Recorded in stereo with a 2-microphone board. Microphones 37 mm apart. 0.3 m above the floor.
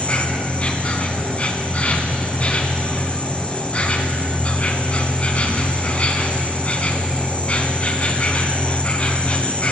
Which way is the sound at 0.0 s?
40° left (ahead or behind).